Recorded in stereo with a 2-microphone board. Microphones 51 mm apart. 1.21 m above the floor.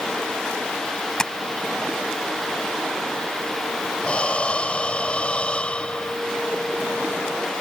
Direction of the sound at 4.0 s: 20° left (ahead or behind).